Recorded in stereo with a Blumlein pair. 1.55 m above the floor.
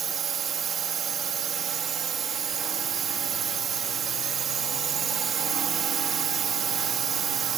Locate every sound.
0.0 s a drone: 25° right